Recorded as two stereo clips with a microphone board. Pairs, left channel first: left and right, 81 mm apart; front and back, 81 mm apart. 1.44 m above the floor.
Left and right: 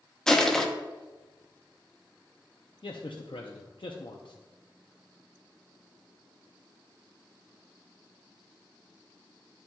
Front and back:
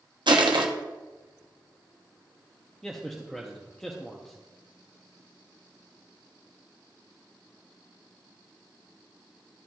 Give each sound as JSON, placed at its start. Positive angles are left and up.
{"t": 0.3, "sound": "crushing", "azimuth_deg": 170, "distance_m": 0.8}
{"t": 2.8, "sound": "a man speaking", "azimuth_deg": 85, "distance_m": 0.7}